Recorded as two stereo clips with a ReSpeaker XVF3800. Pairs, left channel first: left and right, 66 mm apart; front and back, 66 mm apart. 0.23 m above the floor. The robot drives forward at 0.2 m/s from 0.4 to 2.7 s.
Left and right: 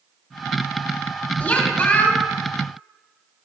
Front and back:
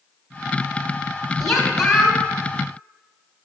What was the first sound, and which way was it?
A woman speaking, 75° left.